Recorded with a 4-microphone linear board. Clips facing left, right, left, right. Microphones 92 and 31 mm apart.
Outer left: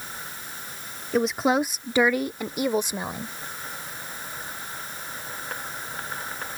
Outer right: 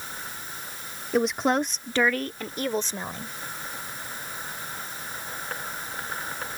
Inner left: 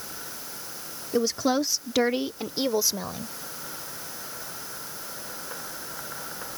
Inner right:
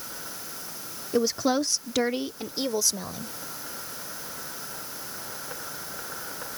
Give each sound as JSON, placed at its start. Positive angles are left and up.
{"t": 1.1, "sound": "a woman speaking", "side_deg": 0}